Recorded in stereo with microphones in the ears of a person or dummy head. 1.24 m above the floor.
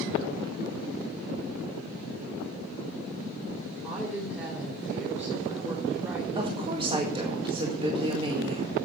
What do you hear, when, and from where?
3.8 s a woman speaking: 5° right (ahead or behind), 3 m
6.3 s a woman speaking: 20° right (ahead or behind), 1.7 m